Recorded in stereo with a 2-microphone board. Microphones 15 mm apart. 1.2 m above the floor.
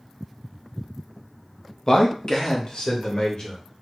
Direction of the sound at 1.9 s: 35° left (ahead or behind).